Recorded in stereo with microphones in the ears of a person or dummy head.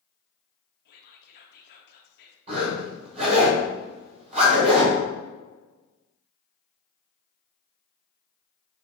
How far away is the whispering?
About 0.7 m.